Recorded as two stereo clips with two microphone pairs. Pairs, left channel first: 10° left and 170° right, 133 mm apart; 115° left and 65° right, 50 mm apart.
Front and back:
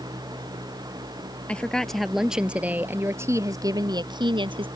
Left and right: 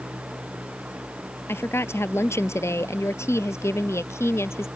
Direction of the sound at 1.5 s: 90° left.